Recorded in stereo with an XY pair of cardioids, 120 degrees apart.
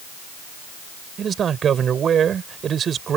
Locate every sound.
1.2 s a man speaking: 45° right